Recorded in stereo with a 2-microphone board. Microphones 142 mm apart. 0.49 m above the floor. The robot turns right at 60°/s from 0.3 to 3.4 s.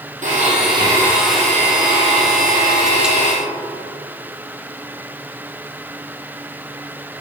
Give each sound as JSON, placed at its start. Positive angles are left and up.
{"t": 0.2, "sound": "a blender", "azimuth_deg": -60, "distance_m": 3.0}